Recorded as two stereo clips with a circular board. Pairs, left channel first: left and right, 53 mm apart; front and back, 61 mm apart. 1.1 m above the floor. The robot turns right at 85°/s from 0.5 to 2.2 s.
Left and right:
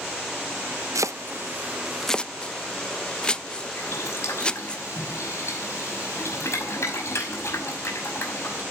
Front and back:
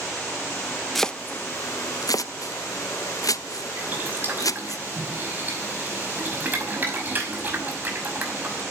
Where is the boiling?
120° left, 5.5 m.